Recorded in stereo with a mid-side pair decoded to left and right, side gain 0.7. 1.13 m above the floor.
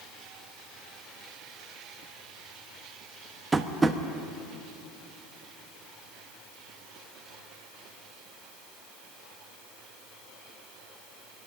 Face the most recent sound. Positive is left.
turn(degrees=-15)